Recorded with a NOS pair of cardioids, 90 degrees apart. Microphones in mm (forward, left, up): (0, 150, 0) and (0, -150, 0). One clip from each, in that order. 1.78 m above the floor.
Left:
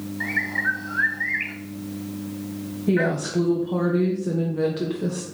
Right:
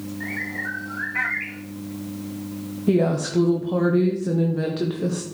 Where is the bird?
50° left, 1.7 m.